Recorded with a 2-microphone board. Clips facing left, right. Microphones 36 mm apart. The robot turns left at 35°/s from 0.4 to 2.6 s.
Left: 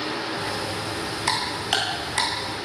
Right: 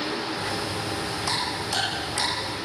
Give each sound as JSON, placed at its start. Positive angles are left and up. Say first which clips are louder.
{"t": 1.3, "sound": "ticking", "louder": "left 5 dB", "side_deg": 80, "distance_m": 10.0}